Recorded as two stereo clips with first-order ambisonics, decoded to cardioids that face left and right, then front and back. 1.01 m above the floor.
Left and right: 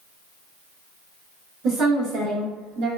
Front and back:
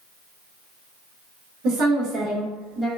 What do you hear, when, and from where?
1.6 s a woman speaking: 150° right, 1.1 m; by 2.9 s 95° right, 1.1 m